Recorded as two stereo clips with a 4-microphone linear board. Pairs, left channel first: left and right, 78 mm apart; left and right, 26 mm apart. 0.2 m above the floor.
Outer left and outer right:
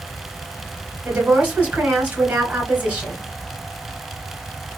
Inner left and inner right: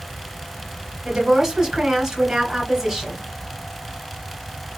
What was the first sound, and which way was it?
A woman speaking, 20° right (ahead or behind).